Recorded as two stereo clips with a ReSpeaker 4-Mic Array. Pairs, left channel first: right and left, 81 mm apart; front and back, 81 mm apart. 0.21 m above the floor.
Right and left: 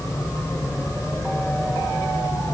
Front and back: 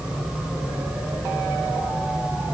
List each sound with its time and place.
Only background noise.